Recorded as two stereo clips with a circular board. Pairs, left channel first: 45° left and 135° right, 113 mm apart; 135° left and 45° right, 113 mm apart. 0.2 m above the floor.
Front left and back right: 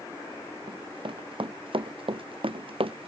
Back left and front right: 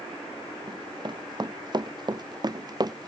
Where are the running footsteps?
95° right; by 3.1 s 100° right.